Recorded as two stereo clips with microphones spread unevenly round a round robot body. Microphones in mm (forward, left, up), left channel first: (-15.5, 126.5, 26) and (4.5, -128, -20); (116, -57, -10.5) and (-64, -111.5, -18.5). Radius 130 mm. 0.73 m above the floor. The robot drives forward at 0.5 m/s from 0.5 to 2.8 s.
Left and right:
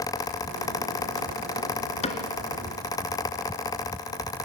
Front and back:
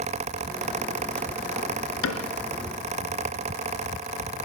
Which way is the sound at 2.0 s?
30° left.